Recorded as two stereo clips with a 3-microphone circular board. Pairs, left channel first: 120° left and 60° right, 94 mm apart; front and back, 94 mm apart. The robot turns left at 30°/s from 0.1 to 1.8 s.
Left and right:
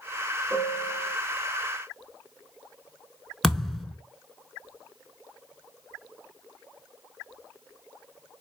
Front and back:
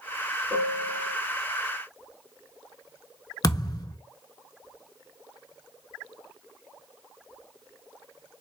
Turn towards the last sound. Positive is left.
turn(degrees=35)